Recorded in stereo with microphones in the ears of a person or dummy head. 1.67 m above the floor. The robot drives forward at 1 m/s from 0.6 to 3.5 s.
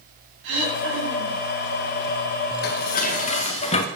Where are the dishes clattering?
50° left (ahead or behind), 1.3 m; by 3.9 s 35° left (ahead or behind), 1.8 m.